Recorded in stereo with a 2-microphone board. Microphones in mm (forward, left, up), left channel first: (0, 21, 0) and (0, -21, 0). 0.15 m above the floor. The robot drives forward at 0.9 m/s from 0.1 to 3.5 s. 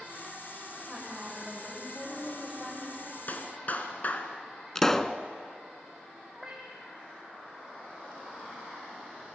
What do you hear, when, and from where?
0.9 s a woman speaking: 10° left (ahead or behind), 8 m
3.3 s a clap: 45° left (ahead or behind), 1.5 m
4.8 s a pop: 10° left (ahead or behind), 0.6 m
6.3 s a cat meowing: 5° right (ahead or behind), 1.5 m